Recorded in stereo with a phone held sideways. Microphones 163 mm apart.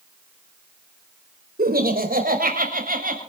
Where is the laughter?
75° right (ahead or behind), 4.5 m; by 3.2 s 65° right (ahead or behind), 6.5 m.